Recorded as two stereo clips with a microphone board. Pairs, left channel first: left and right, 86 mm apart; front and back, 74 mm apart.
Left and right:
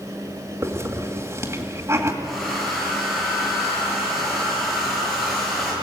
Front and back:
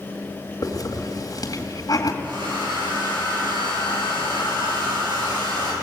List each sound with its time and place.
0.6 s a hiss: 35° right, 2 m
2.2 s a hair dryer: straight behind, 7.5 m